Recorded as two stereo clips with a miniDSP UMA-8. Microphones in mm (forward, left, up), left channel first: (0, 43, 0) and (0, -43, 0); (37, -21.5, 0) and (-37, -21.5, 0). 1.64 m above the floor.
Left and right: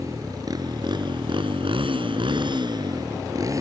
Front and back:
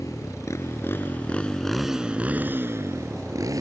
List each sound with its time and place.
0.0 s a motorcycle: 40° right; by 3.6 s 145° right